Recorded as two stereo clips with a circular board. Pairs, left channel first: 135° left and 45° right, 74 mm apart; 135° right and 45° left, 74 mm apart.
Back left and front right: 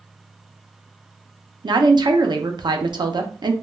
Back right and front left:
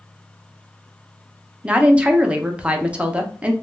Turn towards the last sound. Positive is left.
turn(degrees=-30)